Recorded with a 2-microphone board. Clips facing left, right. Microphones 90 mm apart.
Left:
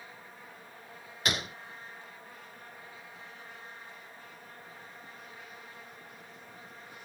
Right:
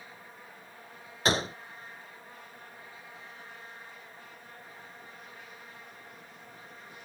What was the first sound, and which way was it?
A gunshot, 35° right (ahead or behind).